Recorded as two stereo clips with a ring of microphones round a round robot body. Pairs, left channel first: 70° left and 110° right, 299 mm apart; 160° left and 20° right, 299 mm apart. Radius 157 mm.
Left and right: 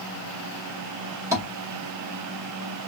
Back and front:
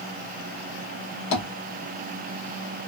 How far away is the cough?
I don't hear a cough.